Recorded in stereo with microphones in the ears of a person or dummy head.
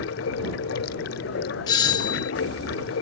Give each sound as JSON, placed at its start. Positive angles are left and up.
{"t": 0.0, "sound": "running water", "side_deg": 75}
{"t": 1.7, "sound": "a doorbell", "side_deg": 25}